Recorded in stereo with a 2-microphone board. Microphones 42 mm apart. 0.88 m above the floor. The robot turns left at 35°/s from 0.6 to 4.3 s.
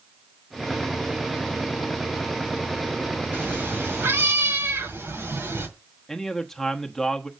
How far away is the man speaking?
About 1.0 m.